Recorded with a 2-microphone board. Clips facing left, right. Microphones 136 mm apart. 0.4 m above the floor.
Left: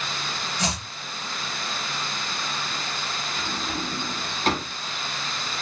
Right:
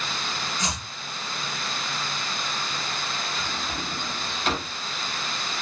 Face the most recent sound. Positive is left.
turn(degrees=45)  # may be behind; listen again after turning